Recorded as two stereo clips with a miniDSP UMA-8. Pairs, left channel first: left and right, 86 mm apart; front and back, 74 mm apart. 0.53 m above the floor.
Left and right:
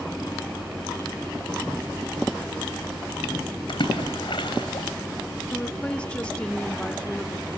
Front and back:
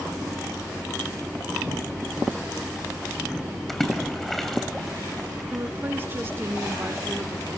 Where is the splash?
85° left, 3 m.